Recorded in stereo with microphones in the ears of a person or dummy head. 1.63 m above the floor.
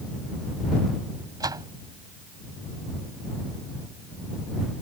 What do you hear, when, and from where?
1.4 s a door slam: 15° right (ahead or behind)